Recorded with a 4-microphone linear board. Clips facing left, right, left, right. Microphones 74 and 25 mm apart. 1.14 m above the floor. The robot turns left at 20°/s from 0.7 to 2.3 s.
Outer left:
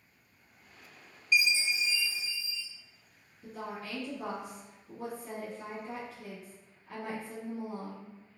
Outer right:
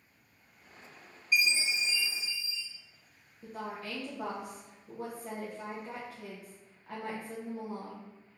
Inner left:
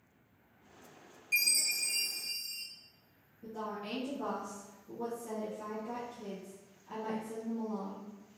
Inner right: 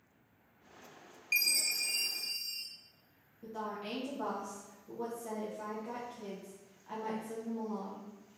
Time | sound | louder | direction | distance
1.3 | a chime | outer left 1 dB, even | 40° right (ahead or behind) | 0.5 m
3.4 | a woman speaking | outer right 1 dB, even | 55° right (ahead or behind) | 0.8 m